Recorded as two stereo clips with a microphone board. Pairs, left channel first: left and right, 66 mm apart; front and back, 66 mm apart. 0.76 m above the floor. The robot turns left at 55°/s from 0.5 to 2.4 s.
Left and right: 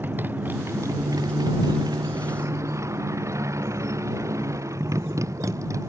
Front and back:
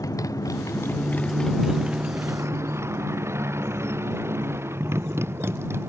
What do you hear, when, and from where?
0.0 s a motorcycle: 30° right; by 5.9 s 130° right